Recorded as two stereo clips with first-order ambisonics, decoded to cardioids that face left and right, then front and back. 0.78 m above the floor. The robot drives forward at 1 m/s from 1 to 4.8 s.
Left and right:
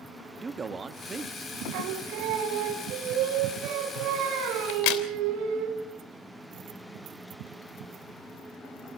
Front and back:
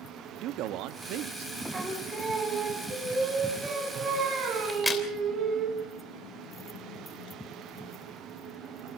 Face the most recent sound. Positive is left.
turn(degrees=85)